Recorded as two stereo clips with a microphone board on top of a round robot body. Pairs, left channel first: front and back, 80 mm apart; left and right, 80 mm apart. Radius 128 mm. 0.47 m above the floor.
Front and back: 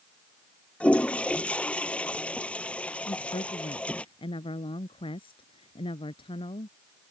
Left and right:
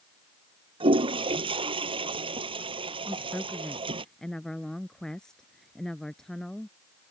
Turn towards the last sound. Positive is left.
turn(degrees=5)